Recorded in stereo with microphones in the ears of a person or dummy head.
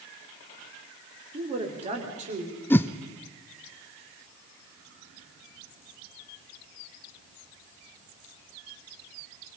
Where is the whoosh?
10° left (ahead or behind), 0.6 m.